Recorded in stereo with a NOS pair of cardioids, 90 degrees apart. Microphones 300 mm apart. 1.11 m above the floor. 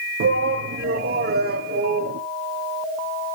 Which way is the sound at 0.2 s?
50° right.